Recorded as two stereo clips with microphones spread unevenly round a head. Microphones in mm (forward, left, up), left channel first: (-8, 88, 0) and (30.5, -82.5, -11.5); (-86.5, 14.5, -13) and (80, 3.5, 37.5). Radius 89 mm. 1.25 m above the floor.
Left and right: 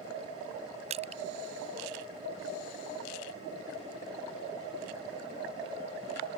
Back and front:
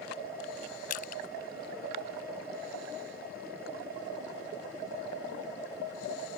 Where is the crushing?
135° right.